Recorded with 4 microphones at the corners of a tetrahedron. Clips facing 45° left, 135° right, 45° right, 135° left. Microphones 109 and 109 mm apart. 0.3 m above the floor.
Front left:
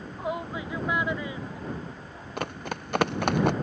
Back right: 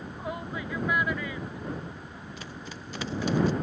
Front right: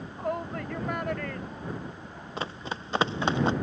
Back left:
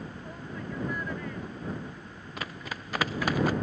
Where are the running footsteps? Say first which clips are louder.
Front left 12 dB, front right 4 dB; 15° left; by 3.5 s 20° left.